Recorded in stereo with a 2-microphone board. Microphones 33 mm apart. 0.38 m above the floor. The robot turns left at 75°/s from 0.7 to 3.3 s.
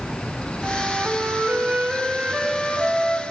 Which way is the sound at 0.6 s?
40° right.